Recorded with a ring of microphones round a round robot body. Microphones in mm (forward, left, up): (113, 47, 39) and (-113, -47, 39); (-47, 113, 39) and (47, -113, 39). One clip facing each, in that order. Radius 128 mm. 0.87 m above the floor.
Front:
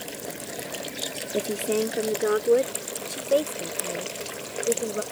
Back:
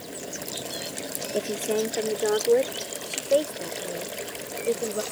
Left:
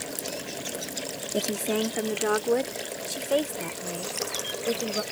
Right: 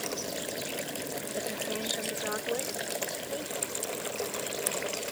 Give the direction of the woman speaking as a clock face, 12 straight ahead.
9 o'clock.